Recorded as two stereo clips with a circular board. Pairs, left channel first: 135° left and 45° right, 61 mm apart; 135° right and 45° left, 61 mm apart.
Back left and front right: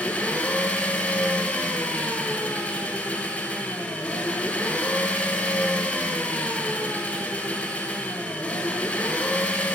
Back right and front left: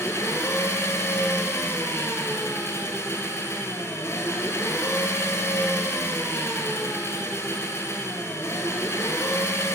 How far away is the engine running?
About 1.9 m.